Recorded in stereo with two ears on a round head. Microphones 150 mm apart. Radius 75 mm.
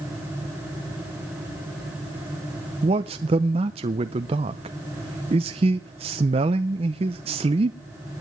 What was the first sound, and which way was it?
A man speaking, 35° right (ahead or behind).